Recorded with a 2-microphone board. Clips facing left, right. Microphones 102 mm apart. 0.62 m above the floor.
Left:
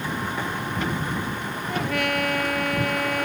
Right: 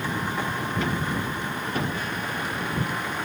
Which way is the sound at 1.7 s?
75° left (ahead or behind).